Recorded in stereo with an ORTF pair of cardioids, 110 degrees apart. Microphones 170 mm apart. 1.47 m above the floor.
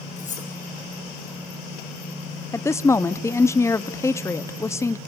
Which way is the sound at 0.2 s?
45° left.